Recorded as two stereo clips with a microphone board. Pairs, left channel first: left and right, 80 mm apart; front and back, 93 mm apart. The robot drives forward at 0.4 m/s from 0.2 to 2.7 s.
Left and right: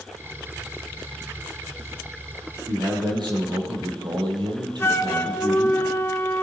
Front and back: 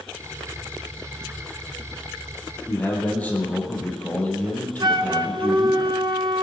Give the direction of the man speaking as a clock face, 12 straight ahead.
2 o'clock.